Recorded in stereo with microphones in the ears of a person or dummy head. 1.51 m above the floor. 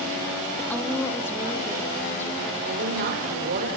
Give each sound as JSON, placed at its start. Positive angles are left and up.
{"t": 0.6, "sound": "a woman speaking", "side_deg": 5, "distance_m": 2.5}
{"t": 2.6, "sound": "a woman speaking", "side_deg": -50, "distance_m": 5.0}